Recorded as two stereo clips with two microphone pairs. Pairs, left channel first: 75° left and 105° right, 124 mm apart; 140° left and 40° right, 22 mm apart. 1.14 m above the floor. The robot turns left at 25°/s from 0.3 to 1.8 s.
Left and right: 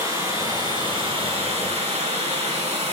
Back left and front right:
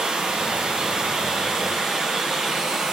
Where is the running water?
45° right, 2.5 m; by 2.9 s 80° right, 2.5 m.